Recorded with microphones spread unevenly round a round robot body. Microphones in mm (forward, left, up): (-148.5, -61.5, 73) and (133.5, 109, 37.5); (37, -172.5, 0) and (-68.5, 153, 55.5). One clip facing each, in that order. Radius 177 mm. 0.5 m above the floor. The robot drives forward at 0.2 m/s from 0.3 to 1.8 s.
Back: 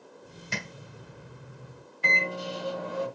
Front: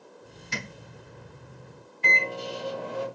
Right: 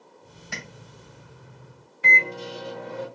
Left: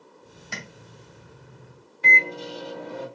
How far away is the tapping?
About 2.5 m.